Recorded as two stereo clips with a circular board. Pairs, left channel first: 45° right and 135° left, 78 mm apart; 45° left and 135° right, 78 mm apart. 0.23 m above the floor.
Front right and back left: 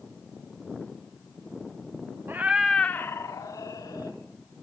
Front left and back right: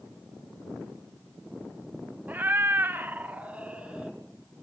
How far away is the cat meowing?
About 0.8 m.